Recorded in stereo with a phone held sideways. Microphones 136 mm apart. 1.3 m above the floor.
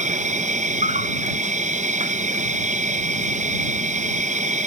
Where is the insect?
60° right (ahead or behind).